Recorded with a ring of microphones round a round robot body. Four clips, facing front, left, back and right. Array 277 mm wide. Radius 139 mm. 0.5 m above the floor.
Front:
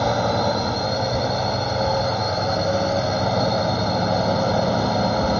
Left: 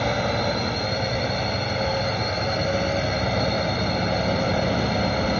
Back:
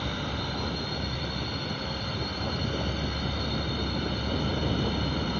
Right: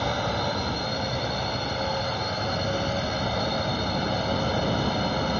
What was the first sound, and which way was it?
A drone, 20° left.